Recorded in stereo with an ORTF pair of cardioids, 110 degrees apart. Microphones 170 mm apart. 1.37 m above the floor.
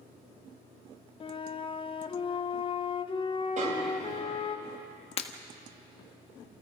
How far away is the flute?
About 1.0 m.